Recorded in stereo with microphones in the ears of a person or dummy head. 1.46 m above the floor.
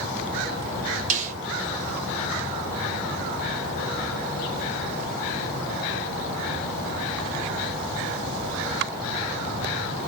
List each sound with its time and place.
1.1 s a snare drum: 40° right (ahead or behind), 0.7 m